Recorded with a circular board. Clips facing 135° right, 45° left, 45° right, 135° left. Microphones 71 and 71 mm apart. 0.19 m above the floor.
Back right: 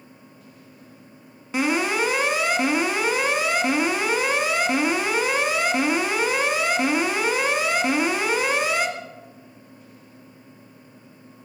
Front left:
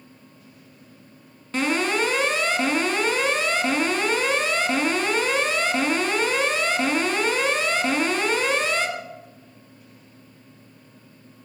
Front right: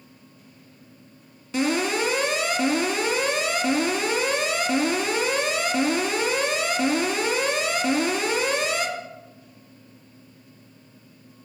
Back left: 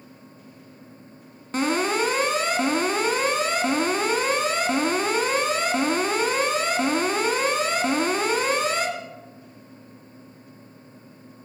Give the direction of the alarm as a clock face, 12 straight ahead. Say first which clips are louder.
Back right 1 dB, back left 1 dB; 7 o'clock.